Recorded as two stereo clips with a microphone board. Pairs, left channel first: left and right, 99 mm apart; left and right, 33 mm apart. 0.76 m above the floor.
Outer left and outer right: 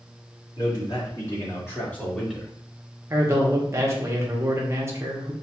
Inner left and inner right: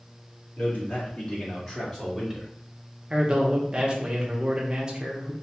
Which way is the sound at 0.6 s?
45° left (ahead or behind).